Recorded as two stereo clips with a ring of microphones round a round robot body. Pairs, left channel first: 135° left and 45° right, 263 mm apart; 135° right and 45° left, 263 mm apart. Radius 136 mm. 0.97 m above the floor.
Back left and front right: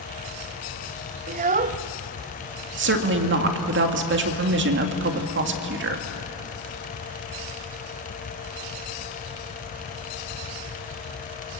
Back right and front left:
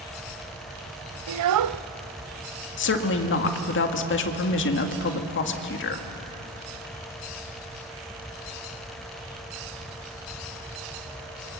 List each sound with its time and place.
1.3 s a child speaking: 20° left, 0.7 m
2.8 s a woman speaking: 90° right, 1.9 m